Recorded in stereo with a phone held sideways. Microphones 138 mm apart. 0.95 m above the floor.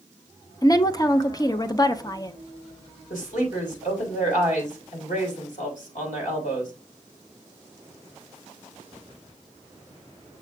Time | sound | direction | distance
0.6 | a woman speaking | 25° left (ahead or behind) | 0.5 m
3.1 | a woman speaking | 70° left (ahead or behind) | 4 m